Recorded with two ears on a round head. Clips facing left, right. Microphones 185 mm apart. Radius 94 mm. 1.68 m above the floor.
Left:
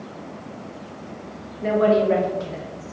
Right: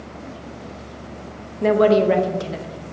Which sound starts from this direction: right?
A woman speaking, at 1.6 s.